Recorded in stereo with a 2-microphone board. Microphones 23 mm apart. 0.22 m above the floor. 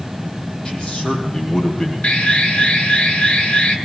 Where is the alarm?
55° left (ahead or behind), 3.5 m.